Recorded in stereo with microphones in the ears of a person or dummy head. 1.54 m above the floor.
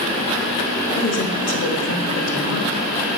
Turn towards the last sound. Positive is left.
turn(degrees=65)  # may be behind; listen again after turning